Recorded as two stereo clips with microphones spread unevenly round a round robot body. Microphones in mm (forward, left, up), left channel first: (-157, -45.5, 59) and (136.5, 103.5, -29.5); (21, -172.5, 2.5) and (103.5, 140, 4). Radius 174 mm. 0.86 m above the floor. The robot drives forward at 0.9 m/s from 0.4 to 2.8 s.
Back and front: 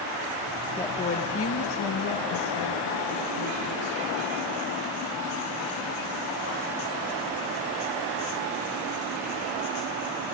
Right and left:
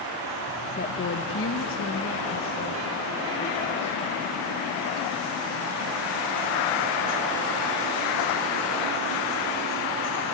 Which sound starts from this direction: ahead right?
A woman speaking, at 0.8 s.